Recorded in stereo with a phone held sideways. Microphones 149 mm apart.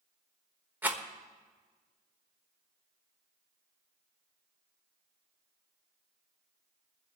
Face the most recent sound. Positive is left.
turn(degrees=-10)  # may be behind; listen again after turning